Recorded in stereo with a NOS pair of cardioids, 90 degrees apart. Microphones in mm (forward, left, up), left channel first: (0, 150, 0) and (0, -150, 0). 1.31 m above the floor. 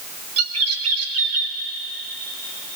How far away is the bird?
About 1.4 m.